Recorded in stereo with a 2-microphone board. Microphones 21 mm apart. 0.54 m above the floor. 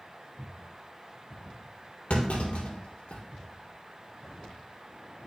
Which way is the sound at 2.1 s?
80° left.